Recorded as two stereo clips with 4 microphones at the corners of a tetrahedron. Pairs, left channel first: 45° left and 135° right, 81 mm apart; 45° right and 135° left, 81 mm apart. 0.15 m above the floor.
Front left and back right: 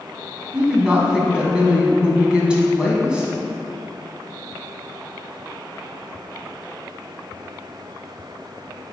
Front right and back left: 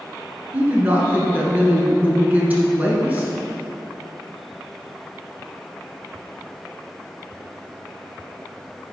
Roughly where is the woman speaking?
Behind.